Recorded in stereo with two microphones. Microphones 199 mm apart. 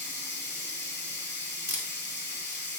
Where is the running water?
65° left (ahead or behind), 1.1 m.